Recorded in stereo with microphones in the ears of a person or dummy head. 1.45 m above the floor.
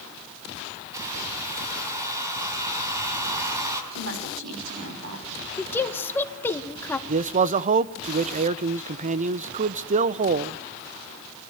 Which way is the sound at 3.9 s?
80° right.